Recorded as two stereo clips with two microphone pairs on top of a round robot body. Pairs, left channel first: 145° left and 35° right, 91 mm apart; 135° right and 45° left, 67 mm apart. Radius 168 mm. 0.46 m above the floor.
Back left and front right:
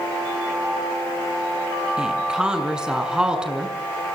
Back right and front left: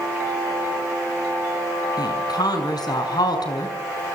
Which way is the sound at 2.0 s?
120° right.